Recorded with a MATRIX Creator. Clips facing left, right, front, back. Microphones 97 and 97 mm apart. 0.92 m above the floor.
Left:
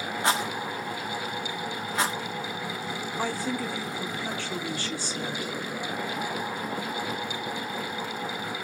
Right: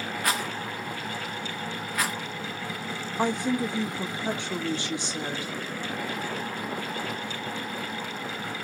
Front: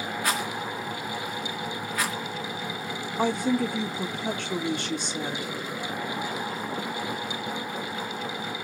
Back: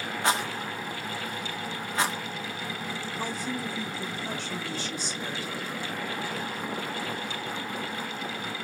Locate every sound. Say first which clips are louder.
0.2 s a rattle: left 4 dB, back 3 dB; 130° left, 1.0 m
3.2 s a woman speaking: right 5 dB, front 11 dB; 20° right, 1.3 m